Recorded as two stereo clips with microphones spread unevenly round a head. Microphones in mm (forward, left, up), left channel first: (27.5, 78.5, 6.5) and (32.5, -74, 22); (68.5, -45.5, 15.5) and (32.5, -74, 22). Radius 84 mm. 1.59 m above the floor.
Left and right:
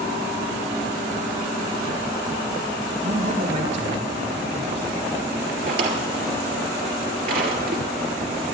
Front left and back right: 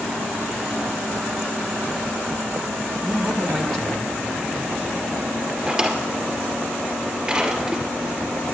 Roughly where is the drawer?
Right.